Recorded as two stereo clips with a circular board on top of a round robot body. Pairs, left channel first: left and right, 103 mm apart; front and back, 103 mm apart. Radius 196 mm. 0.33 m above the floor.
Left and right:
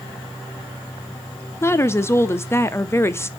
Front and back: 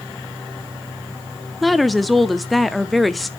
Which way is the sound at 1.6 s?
90° left.